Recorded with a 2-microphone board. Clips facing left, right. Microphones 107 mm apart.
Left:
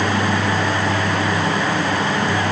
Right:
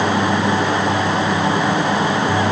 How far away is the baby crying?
No baby crying in this recording.